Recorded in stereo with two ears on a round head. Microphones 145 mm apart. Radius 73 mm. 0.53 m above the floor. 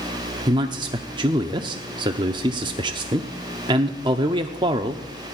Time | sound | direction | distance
0.5 | a man speaking | 30° right (ahead or behind) | 0.7 m